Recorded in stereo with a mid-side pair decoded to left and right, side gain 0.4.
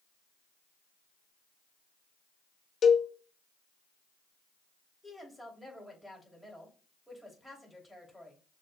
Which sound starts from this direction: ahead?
A woman speaking, at 5.0 s.